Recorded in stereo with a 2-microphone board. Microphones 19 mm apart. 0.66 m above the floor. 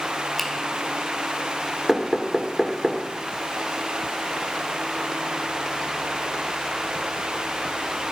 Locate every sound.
0.4 s a finger snap: 5° left (ahead or behind), 2.5 m
1.9 s knocking: 10° right (ahead or behind), 2.0 m